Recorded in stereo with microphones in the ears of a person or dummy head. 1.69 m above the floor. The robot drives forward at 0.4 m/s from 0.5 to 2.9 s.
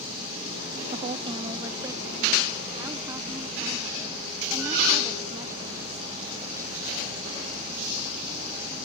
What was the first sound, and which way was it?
A woman speaking, 30° right (ahead or behind).